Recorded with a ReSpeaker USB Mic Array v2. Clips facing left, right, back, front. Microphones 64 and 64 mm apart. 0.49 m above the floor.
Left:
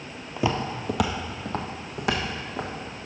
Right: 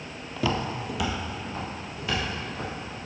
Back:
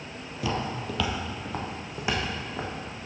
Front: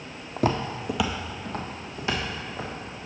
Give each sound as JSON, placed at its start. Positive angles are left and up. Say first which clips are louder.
{"t": 0.4, "sound": "footsteps", "louder": "left 1 dB, front 5 dB", "azimuth_deg": 15, "distance_m": 0.7}